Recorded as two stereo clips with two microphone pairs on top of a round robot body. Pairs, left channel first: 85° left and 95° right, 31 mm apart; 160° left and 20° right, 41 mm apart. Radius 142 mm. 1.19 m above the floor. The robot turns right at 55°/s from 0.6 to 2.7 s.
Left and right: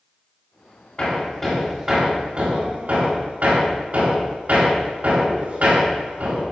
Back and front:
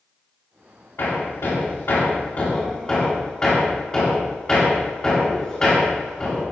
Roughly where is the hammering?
Behind left.